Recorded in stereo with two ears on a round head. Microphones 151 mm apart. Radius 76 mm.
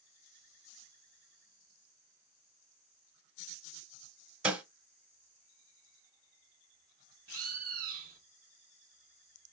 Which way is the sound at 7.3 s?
55° right (ahead or behind).